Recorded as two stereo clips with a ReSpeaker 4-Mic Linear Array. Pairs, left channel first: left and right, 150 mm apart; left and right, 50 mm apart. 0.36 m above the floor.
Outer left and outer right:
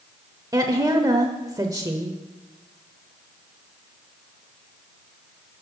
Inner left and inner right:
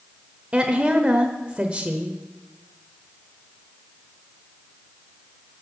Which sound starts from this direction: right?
A woman speaking, at 0.5 s.